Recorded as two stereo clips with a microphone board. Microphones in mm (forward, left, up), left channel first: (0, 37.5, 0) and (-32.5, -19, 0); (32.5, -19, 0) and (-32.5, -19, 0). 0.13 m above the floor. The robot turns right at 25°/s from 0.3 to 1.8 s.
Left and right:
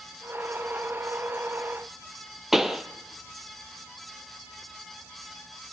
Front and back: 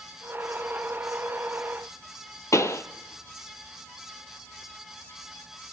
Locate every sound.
2.5 s a pop: 35° right, 0.8 m